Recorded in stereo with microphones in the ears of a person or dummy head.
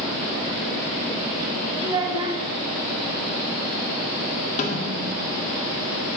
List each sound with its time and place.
1.8 s a child speaking: 20° right (ahead or behind), 1.2 m
4.6 s a snare drum: 40° left (ahead or behind), 1.7 m